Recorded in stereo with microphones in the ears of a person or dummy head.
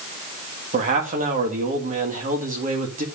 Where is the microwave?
No microwave in this recording.